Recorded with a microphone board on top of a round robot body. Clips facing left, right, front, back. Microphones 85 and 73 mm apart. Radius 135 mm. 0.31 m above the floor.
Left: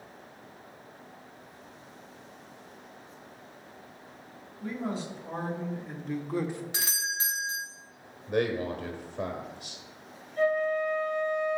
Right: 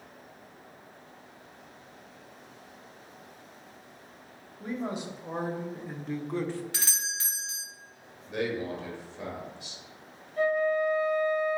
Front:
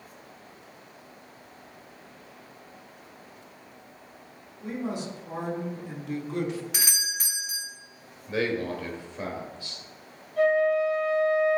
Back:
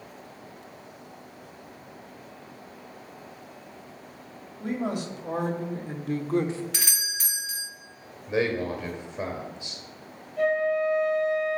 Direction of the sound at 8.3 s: 110° left.